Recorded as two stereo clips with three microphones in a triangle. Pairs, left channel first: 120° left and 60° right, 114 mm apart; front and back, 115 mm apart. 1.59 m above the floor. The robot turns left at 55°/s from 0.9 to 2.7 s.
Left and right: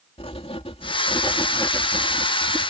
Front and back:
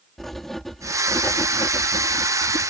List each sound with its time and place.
0.2 s writing: 90° left; by 2.7 s 10° right